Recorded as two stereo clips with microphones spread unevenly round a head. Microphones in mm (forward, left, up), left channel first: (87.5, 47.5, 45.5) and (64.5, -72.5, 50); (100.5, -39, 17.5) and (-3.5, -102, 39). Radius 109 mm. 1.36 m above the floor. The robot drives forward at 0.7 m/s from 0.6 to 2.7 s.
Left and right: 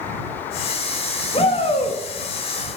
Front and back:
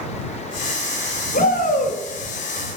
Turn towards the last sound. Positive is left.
turn(degrees=55)